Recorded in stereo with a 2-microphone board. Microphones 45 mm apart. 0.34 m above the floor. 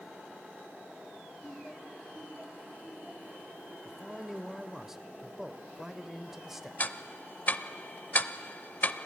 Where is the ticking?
45° left (ahead or behind), 0.6 m.